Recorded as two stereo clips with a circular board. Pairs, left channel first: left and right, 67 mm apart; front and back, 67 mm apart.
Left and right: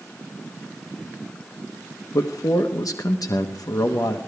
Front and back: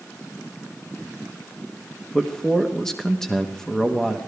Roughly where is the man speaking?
Left.